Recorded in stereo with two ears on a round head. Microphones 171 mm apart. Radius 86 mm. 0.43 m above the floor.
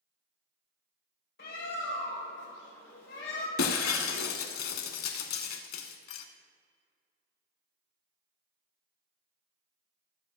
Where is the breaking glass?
80° left, 0.9 m.